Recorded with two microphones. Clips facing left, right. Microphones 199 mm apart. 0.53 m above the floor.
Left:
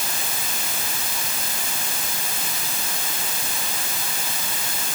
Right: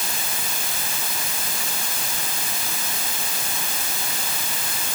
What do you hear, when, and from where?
Only background noise.